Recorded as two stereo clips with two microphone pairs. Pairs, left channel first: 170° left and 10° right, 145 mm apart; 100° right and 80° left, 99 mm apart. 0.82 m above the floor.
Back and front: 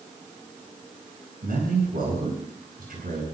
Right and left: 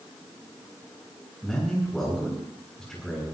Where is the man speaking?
15° right, 10 m.